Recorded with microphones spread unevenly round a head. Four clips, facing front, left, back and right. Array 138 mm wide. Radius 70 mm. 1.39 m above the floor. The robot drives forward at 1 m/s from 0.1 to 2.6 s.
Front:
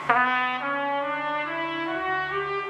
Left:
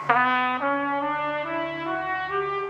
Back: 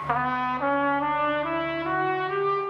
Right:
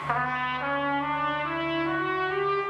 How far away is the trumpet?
About 0.6 m.